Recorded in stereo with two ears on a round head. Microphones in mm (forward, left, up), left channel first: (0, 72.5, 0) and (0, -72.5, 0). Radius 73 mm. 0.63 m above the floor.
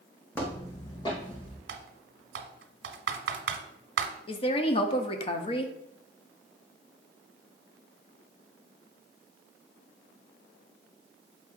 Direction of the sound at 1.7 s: 75° right (ahead or behind).